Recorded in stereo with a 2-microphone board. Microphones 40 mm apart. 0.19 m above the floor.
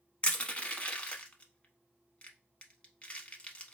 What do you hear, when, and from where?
0.2 s crushing: 30° left (ahead or behind), 0.7 m